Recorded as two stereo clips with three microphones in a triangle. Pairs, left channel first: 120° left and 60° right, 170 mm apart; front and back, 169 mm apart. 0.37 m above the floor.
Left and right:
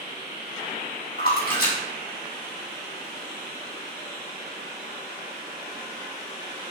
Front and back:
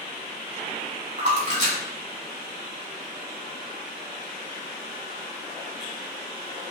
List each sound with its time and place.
1.2 s a splash: 140° left, 2.0 m